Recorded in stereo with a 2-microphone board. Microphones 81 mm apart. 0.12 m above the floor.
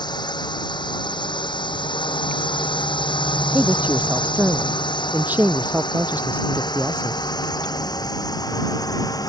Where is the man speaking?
20° right (ahead or behind).